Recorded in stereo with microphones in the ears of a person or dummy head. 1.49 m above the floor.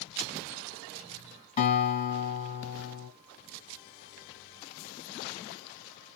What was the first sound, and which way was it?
A guitar, 35° left (ahead or behind).